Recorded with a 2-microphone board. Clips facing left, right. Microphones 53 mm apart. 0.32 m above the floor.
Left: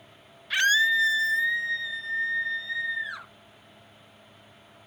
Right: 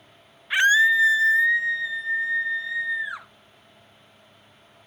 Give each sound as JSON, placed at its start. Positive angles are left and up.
{"t": 0.5, "sound": "a scream", "side_deg": -25, "distance_m": 1.1}